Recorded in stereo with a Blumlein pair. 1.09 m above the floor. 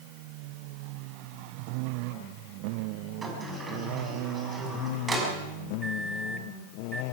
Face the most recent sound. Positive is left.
turn(degrees=-10)